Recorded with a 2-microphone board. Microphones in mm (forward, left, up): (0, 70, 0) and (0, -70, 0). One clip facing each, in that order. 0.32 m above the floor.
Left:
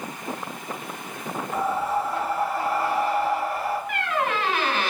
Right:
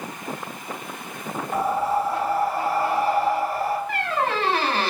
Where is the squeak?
35° right (ahead or behind), 0.6 m.